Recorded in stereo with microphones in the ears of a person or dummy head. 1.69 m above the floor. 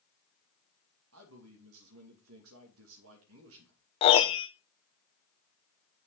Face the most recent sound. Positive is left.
turn(degrees=30)  # may be behind; listen again after turning